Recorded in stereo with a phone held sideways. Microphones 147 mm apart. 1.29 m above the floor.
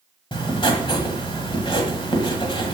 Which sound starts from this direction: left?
Writing, at 0.3 s.